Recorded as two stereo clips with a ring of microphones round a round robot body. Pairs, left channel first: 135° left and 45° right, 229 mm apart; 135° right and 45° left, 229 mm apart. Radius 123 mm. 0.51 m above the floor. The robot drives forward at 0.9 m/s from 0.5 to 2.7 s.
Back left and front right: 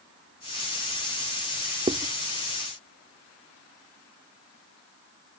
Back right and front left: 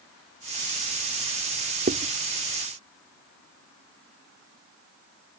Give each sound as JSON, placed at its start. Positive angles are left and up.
{"t": 1.9, "sound": "writing", "azimuth_deg": 10}